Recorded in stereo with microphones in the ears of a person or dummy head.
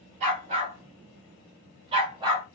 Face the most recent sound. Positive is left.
turn(degrees=-25)  # may be behind; listen again after turning